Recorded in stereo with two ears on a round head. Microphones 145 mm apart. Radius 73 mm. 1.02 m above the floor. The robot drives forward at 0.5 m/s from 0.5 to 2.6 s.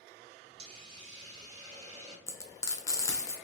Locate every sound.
0.6 s a hiss: 35° right (ahead or behind), 0.8 m; by 2.2 s 20° right (ahead or behind), 1.4 m
2.3 s frying: 20° left (ahead or behind), 0.6 m